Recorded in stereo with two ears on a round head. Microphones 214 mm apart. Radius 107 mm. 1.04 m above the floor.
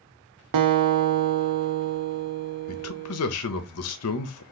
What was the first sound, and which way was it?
A guitar, 85° right.